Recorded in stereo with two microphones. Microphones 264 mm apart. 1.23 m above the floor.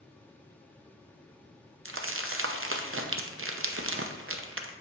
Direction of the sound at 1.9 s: 50° right (ahead or behind).